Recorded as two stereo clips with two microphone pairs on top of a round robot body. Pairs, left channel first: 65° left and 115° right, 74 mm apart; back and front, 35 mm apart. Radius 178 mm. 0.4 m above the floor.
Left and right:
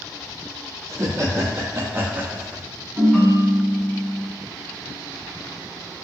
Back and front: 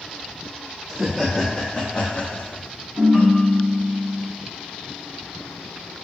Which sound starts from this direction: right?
Laughter, at 0.9 s.